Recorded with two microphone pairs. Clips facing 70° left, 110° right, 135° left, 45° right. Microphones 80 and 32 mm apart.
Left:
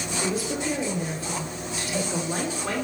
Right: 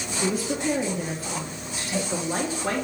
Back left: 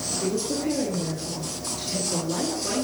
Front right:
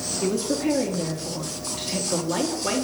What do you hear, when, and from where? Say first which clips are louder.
0.2 s a woman speaking: right 3 dB, front right 3 dB; 65° right, 1.4 m